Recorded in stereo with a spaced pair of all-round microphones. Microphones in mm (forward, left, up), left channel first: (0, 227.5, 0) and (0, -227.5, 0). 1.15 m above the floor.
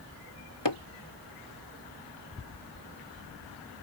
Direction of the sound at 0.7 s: 65° left (ahead or behind).